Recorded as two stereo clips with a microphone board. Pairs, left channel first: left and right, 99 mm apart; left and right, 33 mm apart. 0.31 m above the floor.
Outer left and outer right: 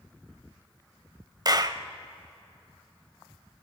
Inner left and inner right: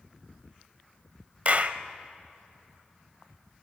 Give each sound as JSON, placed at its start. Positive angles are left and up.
{"t": 1.4, "sound": "a clap", "side_deg": -40, "distance_m": 0.9}